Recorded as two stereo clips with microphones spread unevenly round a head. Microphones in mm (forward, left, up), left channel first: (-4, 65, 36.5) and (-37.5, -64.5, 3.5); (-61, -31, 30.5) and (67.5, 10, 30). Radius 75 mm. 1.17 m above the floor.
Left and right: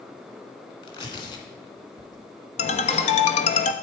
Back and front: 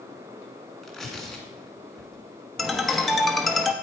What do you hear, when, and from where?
0.8 s tearing paper: 110° left, 2.0 m
2.6 s a ringtone: 110° left, 1.0 m